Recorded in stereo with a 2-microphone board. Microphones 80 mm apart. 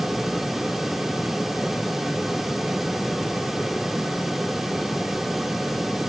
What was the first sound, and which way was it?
Only background noise.